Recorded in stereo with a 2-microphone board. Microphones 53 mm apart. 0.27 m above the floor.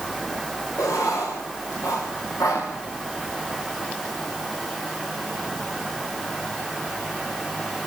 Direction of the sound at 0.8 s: 85° left.